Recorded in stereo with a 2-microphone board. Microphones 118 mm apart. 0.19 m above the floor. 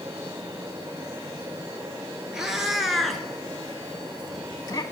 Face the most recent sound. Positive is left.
turn(degrees=40)  # may be behind; listen again after turning